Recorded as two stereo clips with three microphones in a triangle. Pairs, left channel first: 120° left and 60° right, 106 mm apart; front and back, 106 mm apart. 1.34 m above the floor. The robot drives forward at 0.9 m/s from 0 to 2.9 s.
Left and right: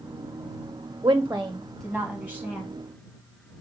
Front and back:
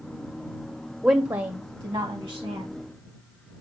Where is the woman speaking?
100° right, 0.5 m; by 2.7 s 165° right, 1.7 m.